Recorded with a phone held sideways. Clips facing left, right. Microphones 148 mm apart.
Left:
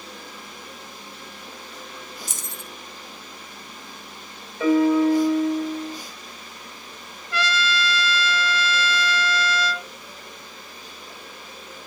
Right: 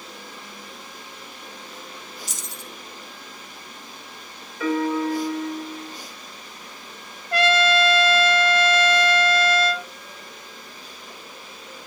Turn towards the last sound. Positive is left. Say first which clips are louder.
# right 6 dB
turn(degrees=-50)  # may be behind; listen again after turning